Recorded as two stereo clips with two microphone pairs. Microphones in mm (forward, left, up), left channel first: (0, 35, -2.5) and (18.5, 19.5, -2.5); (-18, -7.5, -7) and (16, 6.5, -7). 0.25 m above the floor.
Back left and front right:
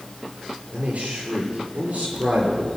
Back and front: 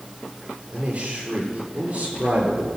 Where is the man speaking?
30° right, 5 m.